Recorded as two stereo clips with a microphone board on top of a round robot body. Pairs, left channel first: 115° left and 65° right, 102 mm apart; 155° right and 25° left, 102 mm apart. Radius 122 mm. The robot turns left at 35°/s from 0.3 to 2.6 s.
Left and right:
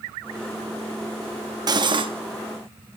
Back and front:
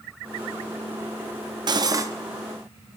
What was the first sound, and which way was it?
Cutlery clinking, 20° right.